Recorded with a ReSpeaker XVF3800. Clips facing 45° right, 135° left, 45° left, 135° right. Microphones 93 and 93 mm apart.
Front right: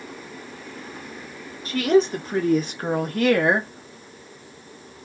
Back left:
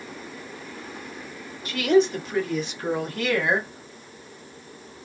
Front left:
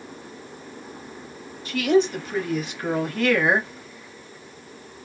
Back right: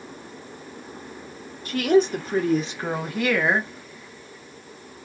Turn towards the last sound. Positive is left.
turn(degrees=-25)